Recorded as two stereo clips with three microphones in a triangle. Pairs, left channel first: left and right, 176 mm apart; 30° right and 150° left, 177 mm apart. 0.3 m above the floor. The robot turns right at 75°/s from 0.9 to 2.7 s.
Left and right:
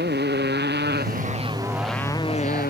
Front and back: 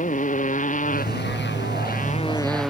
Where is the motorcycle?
75° right; by 2.7 s 60° left.